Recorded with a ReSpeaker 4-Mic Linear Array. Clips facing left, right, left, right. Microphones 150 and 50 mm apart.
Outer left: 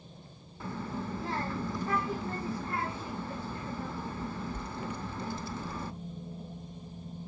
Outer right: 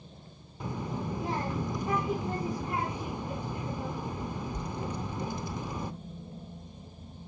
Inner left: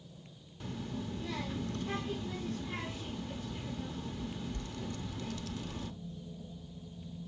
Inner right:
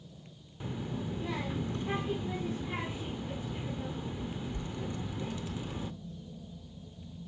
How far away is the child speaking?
About 0.6 m.